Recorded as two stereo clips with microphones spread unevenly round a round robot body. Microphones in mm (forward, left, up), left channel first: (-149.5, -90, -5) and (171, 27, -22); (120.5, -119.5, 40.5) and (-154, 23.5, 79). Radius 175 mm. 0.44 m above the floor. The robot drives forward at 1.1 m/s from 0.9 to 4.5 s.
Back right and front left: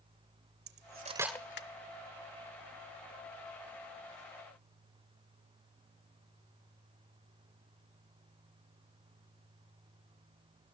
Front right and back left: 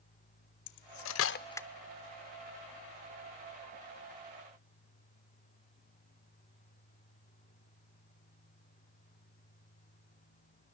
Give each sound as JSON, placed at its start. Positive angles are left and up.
{"t": 0.7, "sound": "cutlery clinking", "azimuth_deg": -40, "distance_m": 0.9}